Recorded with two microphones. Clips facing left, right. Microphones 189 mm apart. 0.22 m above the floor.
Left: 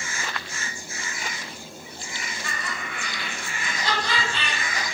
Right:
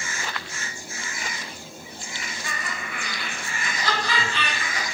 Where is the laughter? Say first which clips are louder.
Even; 20° right (ahead or behind), 1.4 m; by 4.8 s 35° left (ahead or behind), 1.9 m.